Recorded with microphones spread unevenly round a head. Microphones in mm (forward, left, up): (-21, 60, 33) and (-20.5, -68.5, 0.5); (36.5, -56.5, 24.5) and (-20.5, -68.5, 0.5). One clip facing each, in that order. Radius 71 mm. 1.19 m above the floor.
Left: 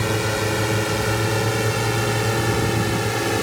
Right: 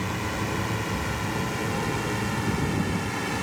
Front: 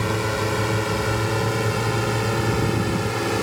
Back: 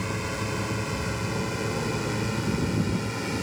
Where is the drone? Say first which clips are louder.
Left 7 dB, front 7 dB; 65° left; by 3.5 s 60° left.